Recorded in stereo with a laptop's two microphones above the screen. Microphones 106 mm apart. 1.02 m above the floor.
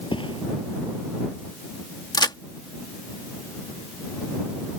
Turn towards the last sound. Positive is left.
turn(degrees=45)  # may be behind; listen again after turning